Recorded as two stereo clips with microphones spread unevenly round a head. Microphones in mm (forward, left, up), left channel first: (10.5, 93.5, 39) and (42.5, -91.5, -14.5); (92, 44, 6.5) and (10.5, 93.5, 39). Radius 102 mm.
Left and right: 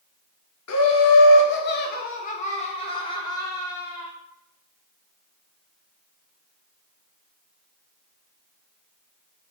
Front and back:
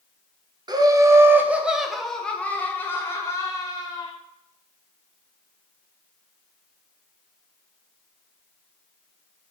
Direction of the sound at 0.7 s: 100° left.